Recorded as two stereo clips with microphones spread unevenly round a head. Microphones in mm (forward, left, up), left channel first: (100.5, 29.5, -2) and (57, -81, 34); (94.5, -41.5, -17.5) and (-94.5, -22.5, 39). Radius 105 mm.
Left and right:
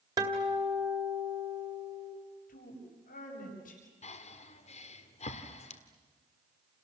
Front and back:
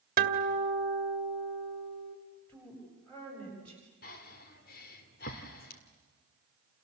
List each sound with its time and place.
0.2 s a guitar: 170° right, 1.8 m
2.5 s a woman speaking: 80° left, 8 m
4.0 s breathing: 45° left, 1.7 m